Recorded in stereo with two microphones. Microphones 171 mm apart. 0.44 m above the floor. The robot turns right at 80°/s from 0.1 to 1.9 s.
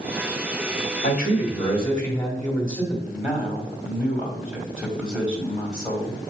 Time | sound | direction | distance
1.0 | a man speaking | 100° left | 1.7 m
3.1 | a man speaking | 5° right (ahead or behind) | 2.0 m